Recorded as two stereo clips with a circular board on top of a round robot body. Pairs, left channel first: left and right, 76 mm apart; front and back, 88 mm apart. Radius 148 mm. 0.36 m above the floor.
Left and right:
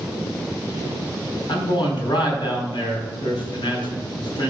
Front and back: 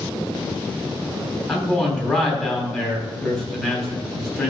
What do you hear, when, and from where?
1.5 s a man speaking: 80° left, 3.5 m